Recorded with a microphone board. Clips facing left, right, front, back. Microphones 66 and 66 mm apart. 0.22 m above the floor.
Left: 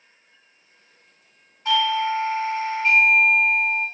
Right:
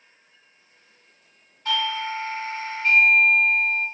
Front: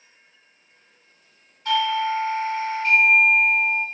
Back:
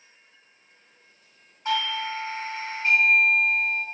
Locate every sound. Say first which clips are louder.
1.6 s a doorbell: left 5 dB, front 6 dB; 135° left, 2 m